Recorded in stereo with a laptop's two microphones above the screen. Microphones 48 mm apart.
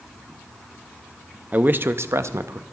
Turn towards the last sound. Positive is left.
turn(degrees=-70)  # may be behind; listen again after turning